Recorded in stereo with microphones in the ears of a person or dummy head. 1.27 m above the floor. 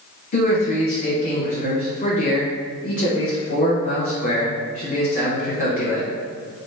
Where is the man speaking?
35° left (ahead or behind), 1.0 m.